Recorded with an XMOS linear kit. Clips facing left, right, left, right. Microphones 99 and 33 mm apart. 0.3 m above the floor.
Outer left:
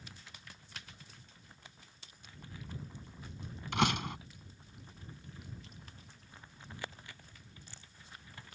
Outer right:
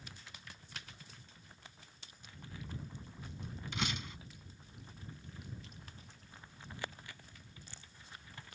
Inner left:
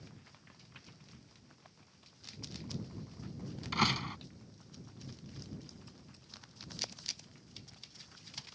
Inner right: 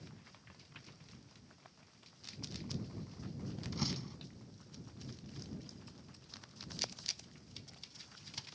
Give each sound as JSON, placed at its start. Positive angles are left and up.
{"t": 3.7, "sound": "a door slam", "side_deg": 65}